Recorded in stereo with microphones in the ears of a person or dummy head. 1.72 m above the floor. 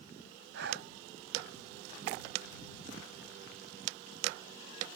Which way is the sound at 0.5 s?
70° right (ahead or behind).